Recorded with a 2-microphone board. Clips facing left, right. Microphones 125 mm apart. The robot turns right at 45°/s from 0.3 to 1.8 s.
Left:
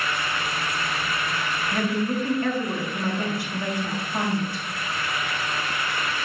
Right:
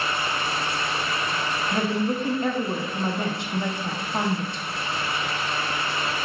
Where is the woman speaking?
25° right (ahead or behind), 0.5 m.